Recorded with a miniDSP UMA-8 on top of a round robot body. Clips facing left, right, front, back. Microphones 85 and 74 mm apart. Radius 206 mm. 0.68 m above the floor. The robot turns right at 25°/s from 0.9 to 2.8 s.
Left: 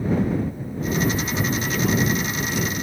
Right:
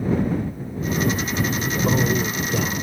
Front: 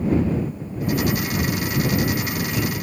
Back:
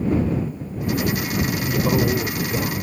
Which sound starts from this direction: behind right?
A man speaking, at 1.6 s.